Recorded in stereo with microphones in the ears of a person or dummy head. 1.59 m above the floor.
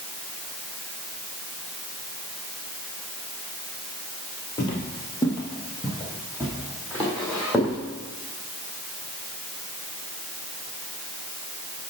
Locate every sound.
4.6 s footsteps: 25° left (ahead or behind), 1.8 m; by 7.8 s 5° left (ahead or behind), 3 m